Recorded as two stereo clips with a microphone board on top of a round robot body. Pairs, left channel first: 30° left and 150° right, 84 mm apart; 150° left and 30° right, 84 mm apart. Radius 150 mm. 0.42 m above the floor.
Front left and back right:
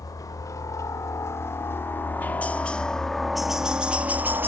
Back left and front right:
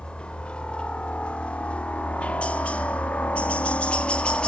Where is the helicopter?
75° left; by 4.5 s 150° right.